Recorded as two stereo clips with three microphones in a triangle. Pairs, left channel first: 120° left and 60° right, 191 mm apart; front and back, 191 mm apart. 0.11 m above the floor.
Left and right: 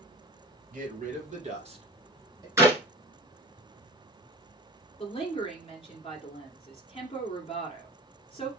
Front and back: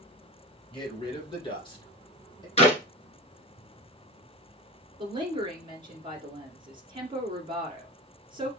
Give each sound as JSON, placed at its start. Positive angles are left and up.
{"t": 0.7, "sound": "a man speaking", "azimuth_deg": -50, "distance_m": 2.0}
{"t": 2.6, "sound": "a clap", "azimuth_deg": 5, "distance_m": 1.2}
{"t": 5.0, "sound": "a woman speaking", "azimuth_deg": 145, "distance_m": 1.4}